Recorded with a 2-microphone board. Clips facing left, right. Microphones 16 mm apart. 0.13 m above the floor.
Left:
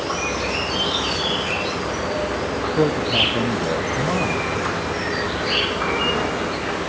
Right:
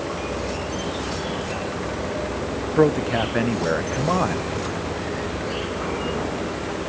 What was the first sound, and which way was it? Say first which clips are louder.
An insect: left 4 dB; 70° left (ahead or behind).